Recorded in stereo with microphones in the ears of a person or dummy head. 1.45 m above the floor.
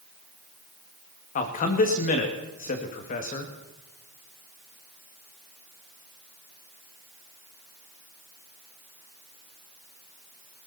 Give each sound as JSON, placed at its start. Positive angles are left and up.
{"t": 1.4, "sound": "a man speaking", "side_deg": 45, "distance_m": 2.0}